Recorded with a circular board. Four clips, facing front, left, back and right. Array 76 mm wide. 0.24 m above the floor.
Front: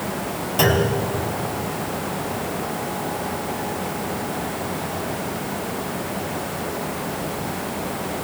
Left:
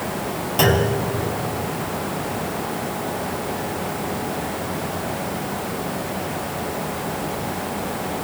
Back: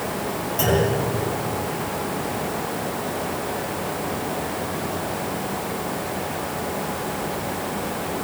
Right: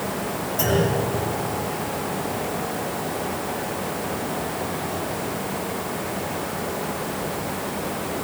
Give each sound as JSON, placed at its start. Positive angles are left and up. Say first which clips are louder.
{"t": 0.6, "sound": "a clunk", "louder": "left 3 dB, front 2 dB", "azimuth_deg": 55, "distance_m": 3.0}